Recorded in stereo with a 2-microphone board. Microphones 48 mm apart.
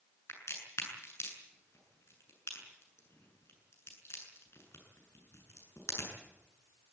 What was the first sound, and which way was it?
A crack, 65° left (ahead or behind).